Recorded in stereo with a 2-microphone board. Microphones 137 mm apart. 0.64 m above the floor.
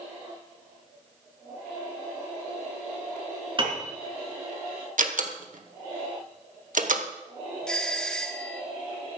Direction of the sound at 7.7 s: 5° left (ahead or behind).